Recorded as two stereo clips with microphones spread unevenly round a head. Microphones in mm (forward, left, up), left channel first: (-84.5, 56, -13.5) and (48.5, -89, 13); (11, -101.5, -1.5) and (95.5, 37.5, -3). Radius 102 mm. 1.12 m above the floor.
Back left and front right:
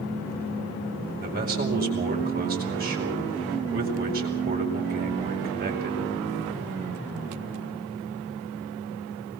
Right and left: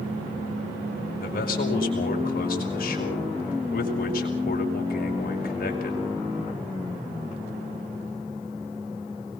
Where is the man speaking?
90° right, 5.5 m.